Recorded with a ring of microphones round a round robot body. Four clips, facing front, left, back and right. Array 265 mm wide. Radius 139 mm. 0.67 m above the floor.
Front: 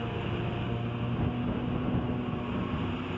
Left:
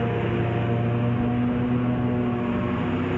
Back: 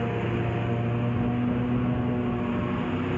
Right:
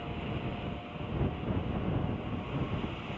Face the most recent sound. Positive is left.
turn(degrees=110)